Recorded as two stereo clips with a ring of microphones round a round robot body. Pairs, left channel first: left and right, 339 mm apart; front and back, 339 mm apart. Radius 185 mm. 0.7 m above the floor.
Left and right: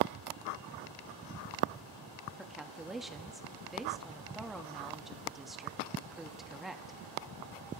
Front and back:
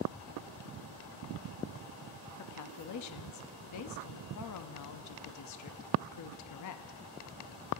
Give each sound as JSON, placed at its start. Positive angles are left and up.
{"t": 2.4, "sound": "a woman speaking", "azimuth_deg": 0, "distance_m": 0.9}